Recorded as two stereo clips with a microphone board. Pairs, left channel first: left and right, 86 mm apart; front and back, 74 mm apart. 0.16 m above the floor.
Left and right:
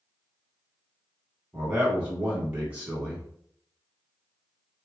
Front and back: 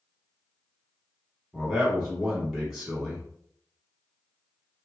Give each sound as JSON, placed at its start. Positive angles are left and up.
{"t": 1.5, "sound": "a man speaking", "azimuth_deg": -115, "distance_m": 1.0}